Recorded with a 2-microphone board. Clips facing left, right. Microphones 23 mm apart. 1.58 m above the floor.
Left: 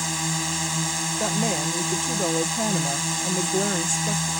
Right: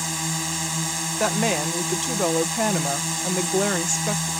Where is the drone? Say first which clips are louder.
Left 1 dB; 5° left (ahead or behind).